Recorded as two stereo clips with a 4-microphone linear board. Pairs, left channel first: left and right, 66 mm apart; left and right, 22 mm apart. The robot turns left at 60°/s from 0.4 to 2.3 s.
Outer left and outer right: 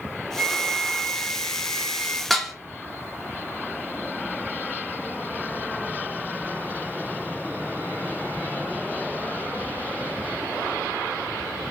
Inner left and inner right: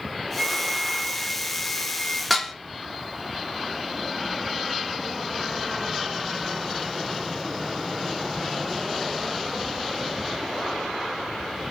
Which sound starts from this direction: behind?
A flute, at 0.4 s.